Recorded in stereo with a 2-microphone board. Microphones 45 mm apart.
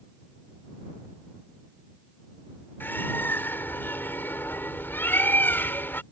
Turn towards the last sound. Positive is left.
turn(degrees=60)  # may be behind; listen again after turning